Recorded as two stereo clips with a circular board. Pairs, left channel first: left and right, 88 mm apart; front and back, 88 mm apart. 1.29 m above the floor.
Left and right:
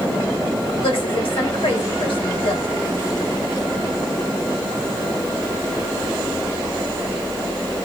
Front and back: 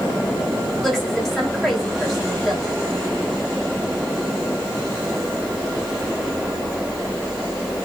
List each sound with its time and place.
0.8 s a woman speaking: 85° left, 3 m